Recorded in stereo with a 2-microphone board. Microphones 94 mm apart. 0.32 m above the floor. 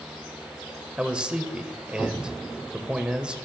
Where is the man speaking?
10° right (ahead or behind), 0.9 m.